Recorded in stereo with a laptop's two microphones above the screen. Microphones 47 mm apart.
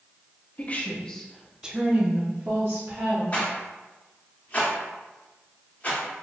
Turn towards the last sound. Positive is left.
turn(degrees=30)  # may be behind; listen again after turning